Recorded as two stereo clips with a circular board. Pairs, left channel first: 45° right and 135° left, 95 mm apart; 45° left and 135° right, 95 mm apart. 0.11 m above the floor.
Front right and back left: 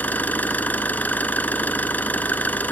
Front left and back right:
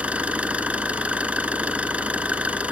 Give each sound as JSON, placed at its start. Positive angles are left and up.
{"t": 0.0, "sound": "an engine running", "azimuth_deg": -85, "distance_m": 1.2}